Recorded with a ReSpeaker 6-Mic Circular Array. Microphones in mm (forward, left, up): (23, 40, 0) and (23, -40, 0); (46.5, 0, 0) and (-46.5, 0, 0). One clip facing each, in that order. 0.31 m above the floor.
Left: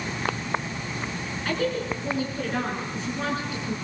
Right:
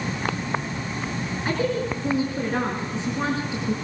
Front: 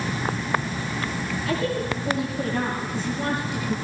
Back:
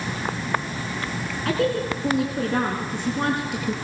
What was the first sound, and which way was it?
A woman speaking, 160° right.